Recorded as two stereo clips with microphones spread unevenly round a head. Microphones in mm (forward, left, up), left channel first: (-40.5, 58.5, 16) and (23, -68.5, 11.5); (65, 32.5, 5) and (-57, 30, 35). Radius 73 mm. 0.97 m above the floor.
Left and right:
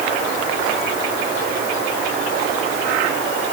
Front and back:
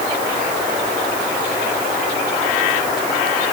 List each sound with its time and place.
Only background noise.